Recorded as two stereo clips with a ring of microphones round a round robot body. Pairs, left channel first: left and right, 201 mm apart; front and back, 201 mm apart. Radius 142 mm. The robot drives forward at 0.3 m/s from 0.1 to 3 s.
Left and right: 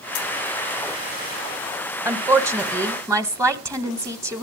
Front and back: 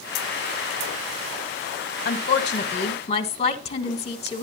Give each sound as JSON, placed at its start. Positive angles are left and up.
{"t": 2.0, "sound": "a woman speaking", "azimuth_deg": -20, "distance_m": 1.3}